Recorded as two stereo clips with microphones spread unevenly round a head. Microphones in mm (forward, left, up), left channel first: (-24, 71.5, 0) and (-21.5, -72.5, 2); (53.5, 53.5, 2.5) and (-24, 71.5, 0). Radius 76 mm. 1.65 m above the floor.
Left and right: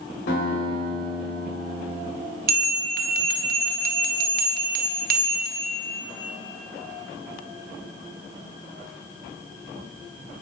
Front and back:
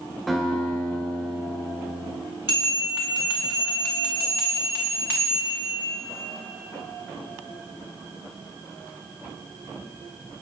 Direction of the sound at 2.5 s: 115° right.